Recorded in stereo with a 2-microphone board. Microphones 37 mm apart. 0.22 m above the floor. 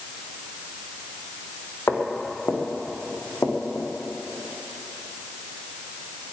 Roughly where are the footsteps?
Left.